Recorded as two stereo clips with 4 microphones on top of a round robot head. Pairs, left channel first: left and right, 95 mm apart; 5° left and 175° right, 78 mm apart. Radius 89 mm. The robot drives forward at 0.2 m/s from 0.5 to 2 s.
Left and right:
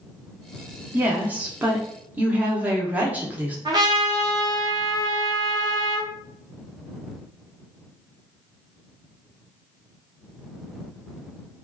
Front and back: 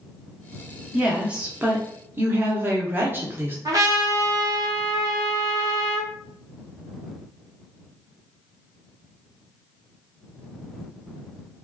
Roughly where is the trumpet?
Behind right.